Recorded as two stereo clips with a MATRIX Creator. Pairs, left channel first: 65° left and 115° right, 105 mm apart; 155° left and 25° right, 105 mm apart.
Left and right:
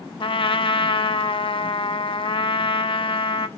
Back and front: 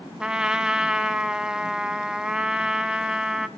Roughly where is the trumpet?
Ahead left.